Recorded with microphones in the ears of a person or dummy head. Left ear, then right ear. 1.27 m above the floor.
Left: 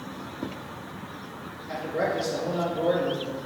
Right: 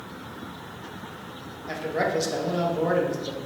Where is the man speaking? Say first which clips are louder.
Right 1 dB; 50° right (ahead or behind), 0.8 m.